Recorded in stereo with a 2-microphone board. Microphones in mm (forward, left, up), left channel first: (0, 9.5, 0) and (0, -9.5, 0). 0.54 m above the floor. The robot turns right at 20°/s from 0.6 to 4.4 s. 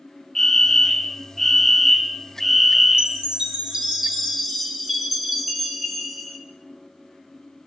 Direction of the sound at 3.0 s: 40° right (ahead or behind).